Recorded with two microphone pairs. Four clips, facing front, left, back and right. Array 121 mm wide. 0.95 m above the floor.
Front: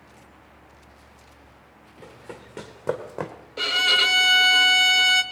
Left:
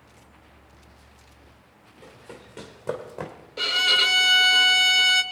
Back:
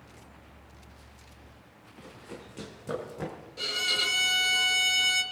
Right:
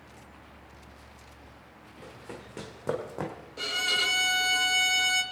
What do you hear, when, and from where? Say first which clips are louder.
2.0 s running footsteps: even, front 4 dB; 25° right, 3 m; by 3.3 s 5° right, 1.8 m
3.6 s a violin: left 6 dB, front 10 dB; 25° left, 0.8 m